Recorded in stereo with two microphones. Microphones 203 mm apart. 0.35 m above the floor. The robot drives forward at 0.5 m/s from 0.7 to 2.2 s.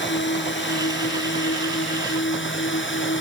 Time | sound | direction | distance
0.0 | a drone | 65° left (ahead or behind) | ?